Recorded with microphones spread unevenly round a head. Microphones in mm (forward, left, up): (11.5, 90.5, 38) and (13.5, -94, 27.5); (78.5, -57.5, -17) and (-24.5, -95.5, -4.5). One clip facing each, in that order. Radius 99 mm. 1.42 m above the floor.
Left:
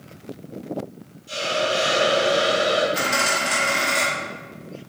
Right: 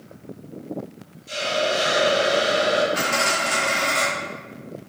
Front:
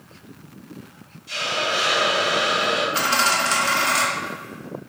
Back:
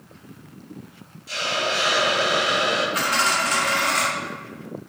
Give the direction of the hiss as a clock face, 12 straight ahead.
5 o'clock.